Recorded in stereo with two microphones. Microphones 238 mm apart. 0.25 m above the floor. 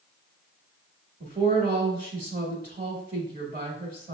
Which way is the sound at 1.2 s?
35° right (ahead or behind).